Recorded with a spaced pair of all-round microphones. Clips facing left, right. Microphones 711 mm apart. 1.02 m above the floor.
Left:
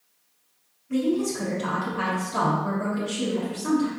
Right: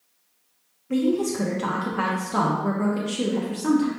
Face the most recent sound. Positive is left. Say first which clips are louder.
# right 2 dB
turn(degrees=-80)